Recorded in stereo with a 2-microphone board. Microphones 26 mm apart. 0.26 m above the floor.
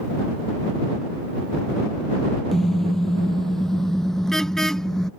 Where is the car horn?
15° left (ahead or behind); by 5.1 s 25° left (ahead or behind).